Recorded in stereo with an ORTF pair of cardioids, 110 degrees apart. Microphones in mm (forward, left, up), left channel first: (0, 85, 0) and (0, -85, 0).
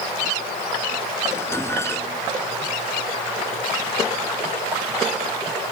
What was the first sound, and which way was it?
Dishes clattering, 15° left.